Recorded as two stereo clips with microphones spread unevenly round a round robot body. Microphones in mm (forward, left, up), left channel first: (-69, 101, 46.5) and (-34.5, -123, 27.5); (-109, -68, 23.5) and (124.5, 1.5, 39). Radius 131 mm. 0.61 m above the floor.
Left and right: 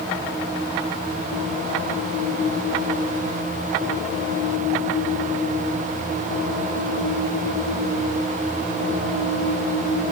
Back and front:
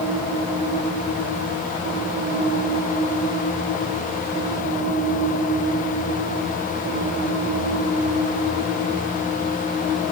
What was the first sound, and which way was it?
Only background noise.